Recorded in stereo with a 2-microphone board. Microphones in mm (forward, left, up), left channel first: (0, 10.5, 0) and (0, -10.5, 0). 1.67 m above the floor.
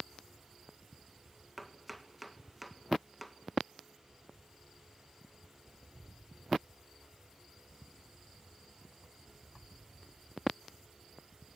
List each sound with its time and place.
1.6 s chopping: centre (ahead or behind), 1.8 m